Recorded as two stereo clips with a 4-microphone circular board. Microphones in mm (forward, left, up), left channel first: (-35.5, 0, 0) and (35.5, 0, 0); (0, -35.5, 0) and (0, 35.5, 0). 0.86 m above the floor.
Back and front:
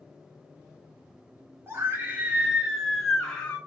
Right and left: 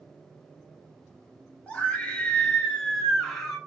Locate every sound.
1.7 s a scream: 30° right, 1.1 m; by 3.6 s 165° right, 0.9 m